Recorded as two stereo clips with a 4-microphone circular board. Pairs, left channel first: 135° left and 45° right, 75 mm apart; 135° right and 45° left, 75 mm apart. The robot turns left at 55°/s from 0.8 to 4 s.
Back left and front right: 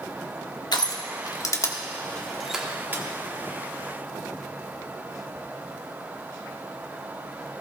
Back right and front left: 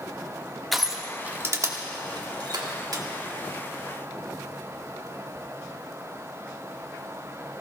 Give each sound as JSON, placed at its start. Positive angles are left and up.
{"t": 0.7, "sound": "crushing", "azimuth_deg": 135, "distance_m": 1.7}